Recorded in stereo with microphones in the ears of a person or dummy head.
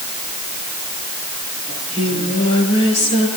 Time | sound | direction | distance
1.7 | singing | 40° left (ahead or behind) | 8 m